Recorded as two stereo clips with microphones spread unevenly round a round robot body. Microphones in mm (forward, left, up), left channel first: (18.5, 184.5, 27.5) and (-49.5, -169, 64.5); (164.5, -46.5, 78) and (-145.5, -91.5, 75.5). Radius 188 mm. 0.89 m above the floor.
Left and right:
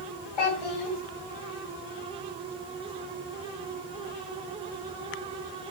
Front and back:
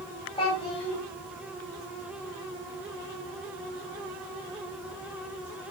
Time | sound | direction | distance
0.4 | a child speaking | 85° left | 3 m